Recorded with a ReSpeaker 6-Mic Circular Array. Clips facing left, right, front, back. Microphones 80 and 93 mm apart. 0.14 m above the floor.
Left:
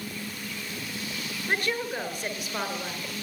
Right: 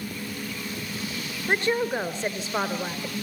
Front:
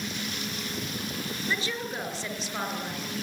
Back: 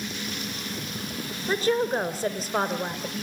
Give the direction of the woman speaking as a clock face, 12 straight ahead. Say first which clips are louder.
Right 5 dB, back 11 dB; 5 o'clock.